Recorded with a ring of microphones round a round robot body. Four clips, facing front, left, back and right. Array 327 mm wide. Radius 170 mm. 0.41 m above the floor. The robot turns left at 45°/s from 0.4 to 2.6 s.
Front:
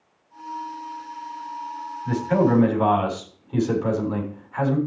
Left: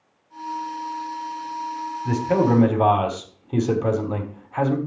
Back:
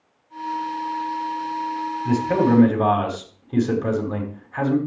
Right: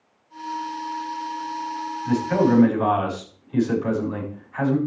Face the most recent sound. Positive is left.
turn(degrees=120)